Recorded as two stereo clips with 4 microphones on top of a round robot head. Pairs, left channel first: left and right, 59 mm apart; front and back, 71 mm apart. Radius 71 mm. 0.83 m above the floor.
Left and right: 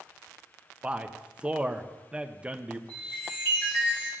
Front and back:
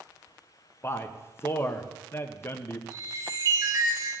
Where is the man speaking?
25° right, 0.5 m.